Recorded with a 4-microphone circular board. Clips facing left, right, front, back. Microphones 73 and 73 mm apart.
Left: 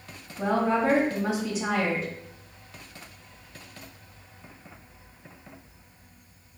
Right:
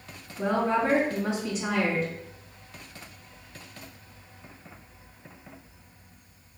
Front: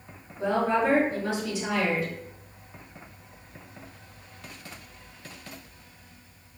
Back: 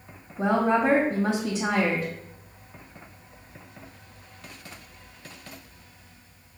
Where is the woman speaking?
170° left, 1.8 m.